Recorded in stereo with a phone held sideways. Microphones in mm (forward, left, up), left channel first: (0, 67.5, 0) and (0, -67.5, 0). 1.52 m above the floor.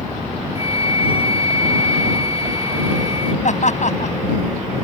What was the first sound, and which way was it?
A flute, 45° left (ahead or behind).